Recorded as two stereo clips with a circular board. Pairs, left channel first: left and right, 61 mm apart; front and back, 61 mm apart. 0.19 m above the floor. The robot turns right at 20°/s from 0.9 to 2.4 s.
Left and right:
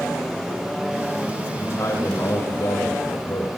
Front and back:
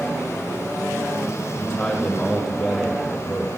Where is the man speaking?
80° left, 6.5 m; by 3.5 s 95° left, 6.5 m.